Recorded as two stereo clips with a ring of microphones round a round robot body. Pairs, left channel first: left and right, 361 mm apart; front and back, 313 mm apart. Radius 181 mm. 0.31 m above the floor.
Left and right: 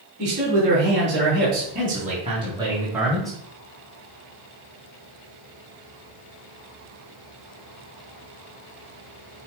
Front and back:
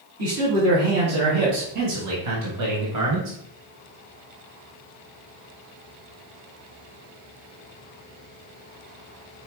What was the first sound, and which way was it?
A man speaking, 140° right.